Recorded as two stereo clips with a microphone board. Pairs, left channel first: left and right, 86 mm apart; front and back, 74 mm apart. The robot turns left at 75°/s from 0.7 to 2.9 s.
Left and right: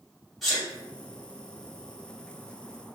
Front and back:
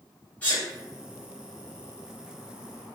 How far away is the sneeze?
About 1.3 m.